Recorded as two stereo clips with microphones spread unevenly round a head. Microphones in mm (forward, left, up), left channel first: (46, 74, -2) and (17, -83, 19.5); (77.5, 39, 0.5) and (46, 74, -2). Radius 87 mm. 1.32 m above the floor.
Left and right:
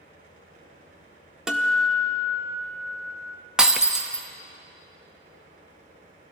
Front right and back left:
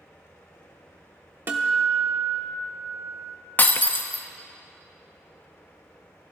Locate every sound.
0.0 s a fan: 65° right, 4.5 m
1.5 s a guitar: straight behind, 0.7 m
3.6 s breaking glass: 25° right, 0.8 m